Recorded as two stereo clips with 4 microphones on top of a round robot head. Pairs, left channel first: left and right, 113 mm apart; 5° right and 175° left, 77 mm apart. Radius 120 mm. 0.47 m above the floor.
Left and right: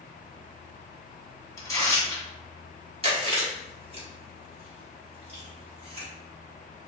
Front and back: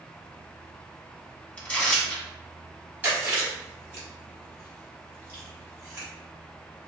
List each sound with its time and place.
1.6 s tearing paper: 50° left, 1.5 m
3.0 s chewing: 120° right, 1.6 m